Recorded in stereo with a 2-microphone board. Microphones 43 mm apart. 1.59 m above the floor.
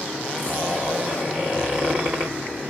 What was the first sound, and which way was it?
A zipper, 45° right (ahead or behind).